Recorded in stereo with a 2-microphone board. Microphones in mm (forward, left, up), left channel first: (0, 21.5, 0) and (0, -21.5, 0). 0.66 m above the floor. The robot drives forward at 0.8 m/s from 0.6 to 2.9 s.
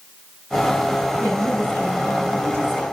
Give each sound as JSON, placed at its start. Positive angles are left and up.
{"t": 1.2, "sound": "a woman speaking", "side_deg": 75, "distance_m": 5.5}